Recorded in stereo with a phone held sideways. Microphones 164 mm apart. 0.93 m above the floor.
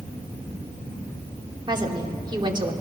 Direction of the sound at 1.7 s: 25° right (ahead or behind).